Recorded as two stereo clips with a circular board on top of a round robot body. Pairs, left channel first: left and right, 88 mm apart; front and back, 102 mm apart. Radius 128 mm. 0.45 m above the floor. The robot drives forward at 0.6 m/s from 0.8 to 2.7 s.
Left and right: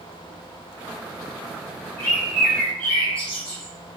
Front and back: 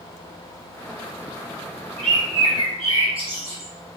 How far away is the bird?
About 1.2 m.